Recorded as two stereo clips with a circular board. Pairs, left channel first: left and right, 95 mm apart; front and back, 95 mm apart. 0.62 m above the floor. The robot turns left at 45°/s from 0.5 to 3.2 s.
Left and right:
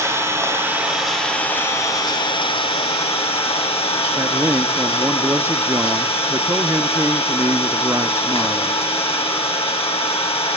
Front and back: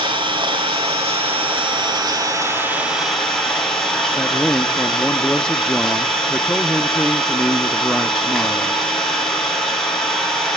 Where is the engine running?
150° right, 4 m; by 10.6 s 85° left, 4 m.